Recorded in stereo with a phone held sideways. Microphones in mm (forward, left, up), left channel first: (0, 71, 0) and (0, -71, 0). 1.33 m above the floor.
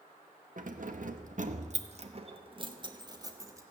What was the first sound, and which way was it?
Keys jangling, 65° right (ahead or behind).